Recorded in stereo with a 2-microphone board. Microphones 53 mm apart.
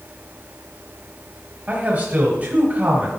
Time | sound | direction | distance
1.7 | a man speaking | 30° right (ahead or behind) | 1.3 m